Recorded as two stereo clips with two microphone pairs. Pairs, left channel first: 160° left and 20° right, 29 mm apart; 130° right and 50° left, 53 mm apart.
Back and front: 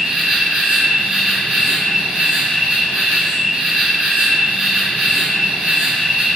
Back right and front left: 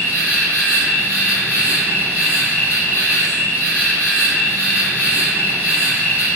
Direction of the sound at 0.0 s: 25° left.